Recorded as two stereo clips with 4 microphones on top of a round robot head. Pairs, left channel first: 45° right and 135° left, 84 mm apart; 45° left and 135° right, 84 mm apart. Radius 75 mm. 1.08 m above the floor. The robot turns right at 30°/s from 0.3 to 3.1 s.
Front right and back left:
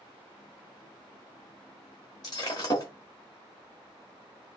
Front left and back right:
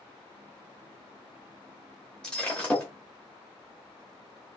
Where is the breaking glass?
30° right, 0.8 m; by 2.9 s 10° right, 0.8 m.